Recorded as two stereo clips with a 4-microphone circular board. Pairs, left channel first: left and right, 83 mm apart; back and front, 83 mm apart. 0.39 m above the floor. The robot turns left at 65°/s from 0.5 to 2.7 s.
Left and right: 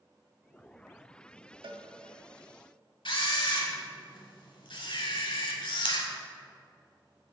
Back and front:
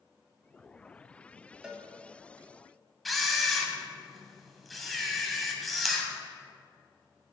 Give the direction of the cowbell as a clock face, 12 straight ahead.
3 o'clock.